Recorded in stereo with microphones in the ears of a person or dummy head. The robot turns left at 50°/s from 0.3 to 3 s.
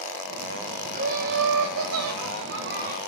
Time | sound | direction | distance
0.9 | laughter | 35° right | 0.5 m